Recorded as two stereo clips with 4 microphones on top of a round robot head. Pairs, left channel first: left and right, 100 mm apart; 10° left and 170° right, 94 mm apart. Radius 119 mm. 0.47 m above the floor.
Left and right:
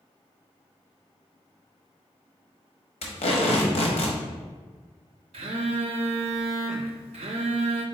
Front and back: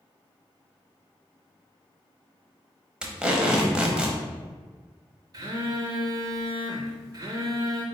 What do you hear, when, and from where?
3.0 s tape being pulled: 110° left, 0.8 m
5.3 s a phone buzzing: 115° right, 0.5 m